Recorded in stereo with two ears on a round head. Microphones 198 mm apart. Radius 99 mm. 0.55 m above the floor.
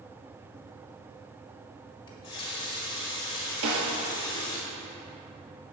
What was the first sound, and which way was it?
A running tap, 20° left (ahead or behind).